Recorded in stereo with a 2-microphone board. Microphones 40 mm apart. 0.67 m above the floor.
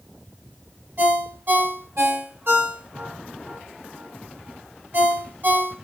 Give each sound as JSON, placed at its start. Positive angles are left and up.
{"t": 1.0, "sound": "a ringtone", "side_deg": -65, "distance_m": 1.7}